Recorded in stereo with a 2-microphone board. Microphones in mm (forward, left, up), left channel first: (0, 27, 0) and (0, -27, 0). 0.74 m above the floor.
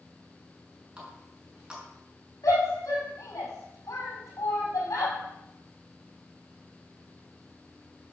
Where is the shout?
70° left (ahead or behind), 5.5 m.